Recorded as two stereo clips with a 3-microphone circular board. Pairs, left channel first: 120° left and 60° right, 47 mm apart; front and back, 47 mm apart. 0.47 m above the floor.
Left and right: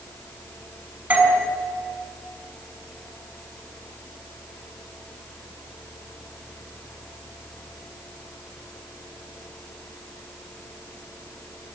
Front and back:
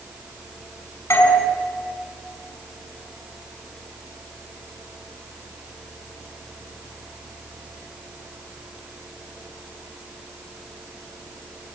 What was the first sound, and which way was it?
A doorbell, 5° right.